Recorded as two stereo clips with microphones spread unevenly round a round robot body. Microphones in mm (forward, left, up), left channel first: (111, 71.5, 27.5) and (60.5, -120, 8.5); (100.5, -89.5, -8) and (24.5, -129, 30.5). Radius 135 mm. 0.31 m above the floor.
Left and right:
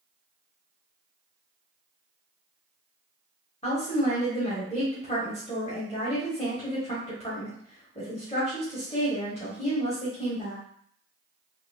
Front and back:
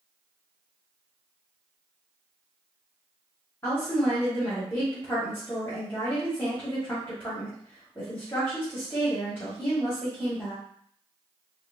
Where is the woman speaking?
20° left, 1.6 m.